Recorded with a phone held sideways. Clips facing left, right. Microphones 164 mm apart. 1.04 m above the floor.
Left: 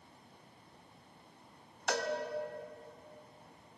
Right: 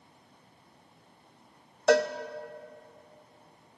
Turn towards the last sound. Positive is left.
turn(degrees=-75)  # may be behind; listen again after turning